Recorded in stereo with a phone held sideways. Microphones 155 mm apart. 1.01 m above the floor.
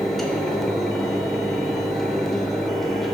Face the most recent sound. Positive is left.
turn(degrees=0)  # may be behind; listen again after turning